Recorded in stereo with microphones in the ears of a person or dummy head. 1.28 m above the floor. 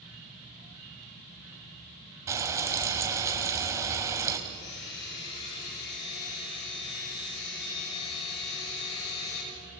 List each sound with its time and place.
2.3 s frying: 20° right (ahead or behind), 2.5 m
4.5 s a blender: 55° left (ahead or behind), 7.5 m